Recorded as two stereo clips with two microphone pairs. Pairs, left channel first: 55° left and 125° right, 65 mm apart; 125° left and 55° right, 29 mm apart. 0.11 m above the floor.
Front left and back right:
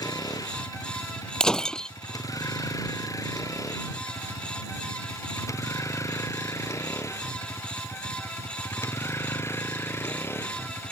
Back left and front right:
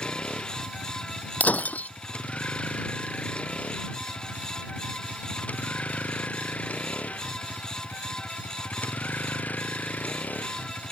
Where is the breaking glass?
130° left.